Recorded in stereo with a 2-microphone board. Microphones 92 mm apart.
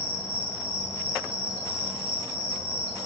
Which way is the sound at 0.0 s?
75° right (ahead or behind).